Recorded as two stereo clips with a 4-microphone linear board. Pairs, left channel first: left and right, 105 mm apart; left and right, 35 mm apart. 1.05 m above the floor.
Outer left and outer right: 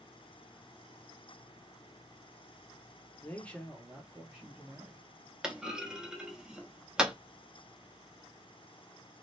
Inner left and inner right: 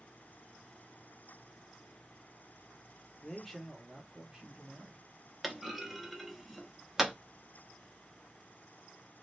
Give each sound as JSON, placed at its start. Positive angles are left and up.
{"t": 3.2, "sound": "a man speaking", "side_deg": 25, "distance_m": 0.7}
{"t": 5.4, "sound": "a clunk", "side_deg": -10, "distance_m": 0.6}